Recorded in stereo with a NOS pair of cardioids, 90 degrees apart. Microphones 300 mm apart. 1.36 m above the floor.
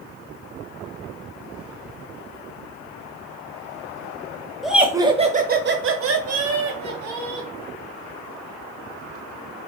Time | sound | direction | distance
4.6 | laughter | straight ahead | 0.9 m